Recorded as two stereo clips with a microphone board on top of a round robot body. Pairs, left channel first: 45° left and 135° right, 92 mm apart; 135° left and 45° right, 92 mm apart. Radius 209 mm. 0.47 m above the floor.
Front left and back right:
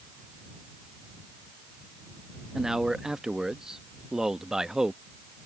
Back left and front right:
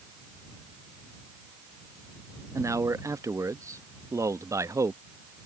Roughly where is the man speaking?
Ahead right.